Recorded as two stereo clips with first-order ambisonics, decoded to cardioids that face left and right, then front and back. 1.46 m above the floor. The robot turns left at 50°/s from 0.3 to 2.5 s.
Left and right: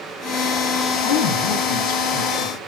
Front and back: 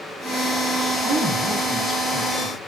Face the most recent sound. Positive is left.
turn(degrees=50)